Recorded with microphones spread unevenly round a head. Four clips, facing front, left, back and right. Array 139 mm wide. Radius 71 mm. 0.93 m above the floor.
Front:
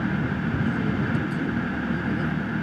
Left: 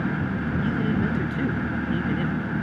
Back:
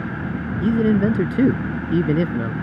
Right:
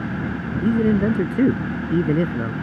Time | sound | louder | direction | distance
0.6 | a man speaking | right 9 dB, back 13 dB | 140° right | ?